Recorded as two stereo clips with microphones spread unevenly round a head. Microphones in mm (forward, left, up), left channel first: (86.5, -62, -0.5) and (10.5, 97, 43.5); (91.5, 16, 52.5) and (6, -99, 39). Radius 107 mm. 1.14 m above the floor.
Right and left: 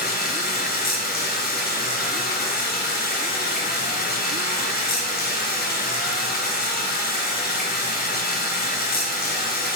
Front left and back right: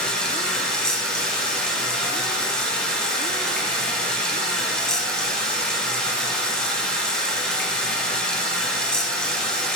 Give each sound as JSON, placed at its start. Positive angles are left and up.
{"t": 0.0, "sound": "running water", "azimuth_deg": -35, "distance_m": 0.8}